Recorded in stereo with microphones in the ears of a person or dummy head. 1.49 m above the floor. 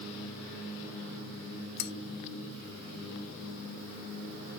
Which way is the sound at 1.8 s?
55° left (ahead or behind).